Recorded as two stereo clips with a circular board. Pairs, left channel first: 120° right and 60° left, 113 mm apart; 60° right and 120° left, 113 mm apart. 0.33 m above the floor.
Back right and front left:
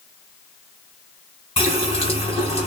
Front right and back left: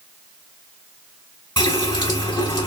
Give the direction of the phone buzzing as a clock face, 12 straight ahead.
No phone buzzing in this recording.